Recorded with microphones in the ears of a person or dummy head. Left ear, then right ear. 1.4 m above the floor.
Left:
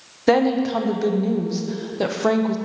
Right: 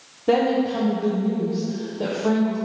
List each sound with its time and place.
0.3 s a woman speaking: 65° left (ahead or behind), 0.7 m